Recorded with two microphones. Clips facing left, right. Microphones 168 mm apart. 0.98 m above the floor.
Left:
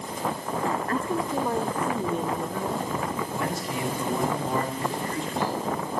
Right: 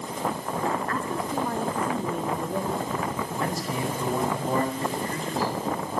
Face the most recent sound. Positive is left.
turn(degrees=-35)  # may be behind; listen again after turning